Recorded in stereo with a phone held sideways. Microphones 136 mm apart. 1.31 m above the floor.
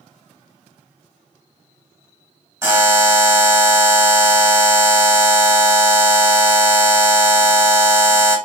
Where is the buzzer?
20° right (ahead or behind), 1.7 m.